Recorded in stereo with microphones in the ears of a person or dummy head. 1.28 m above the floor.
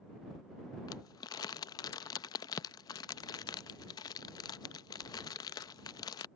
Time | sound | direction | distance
0.9 | crumpling | 20° left (ahead or behind) | ?